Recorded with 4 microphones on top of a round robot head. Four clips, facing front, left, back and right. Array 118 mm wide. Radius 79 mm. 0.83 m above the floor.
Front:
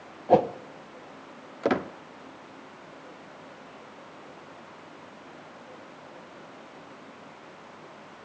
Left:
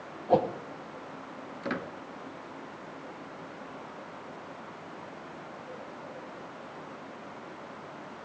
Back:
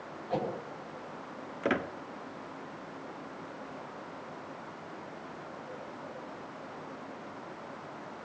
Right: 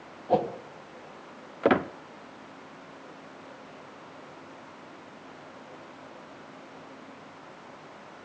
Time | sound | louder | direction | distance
0.3 | a whoosh | left 1 dB, front 13 dB | 5° left | 1.3 m
1.6 | a squeak | right 12 dB, front 5 dB | 65° right | 0.5 m